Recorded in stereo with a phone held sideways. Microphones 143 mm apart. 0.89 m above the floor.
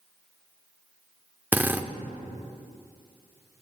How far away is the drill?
About 0.7 m.